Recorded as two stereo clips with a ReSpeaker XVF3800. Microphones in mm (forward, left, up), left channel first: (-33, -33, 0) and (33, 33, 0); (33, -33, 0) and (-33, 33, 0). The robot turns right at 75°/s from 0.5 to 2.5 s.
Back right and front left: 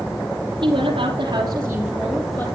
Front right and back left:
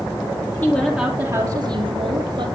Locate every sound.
0.6 s a woman speaking: 35° left, 3.5 m; by 2.5 s 170° left, 3.5 m